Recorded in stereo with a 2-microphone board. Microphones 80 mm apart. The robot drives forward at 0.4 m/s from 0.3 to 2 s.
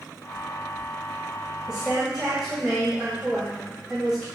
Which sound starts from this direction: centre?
A woman speaking, at 1.7 s.